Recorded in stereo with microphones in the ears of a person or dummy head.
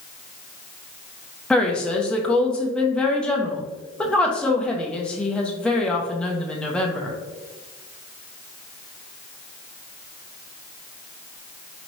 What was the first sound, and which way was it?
A woman speaking, 5° left (ahead or behind).